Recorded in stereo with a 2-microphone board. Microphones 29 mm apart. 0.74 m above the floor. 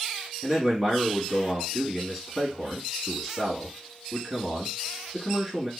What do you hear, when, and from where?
0.4 s a man speaking: 10° right (ahead or behind), 1.4 m